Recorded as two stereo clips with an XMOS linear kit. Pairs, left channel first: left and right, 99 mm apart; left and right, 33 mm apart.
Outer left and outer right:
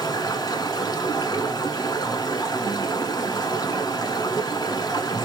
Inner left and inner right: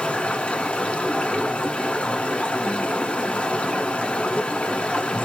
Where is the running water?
45° left (ahead or behind), 1.2 m.